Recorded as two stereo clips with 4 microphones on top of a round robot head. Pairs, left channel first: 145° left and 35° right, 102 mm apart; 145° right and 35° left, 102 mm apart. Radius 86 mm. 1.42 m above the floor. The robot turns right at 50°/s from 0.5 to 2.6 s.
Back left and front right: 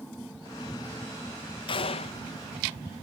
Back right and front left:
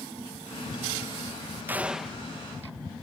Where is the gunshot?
110° left; by 2.2 s 135° left.